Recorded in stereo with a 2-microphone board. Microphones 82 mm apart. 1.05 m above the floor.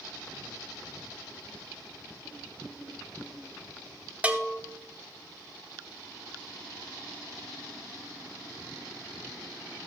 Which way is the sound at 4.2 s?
15° right (ahead or behind).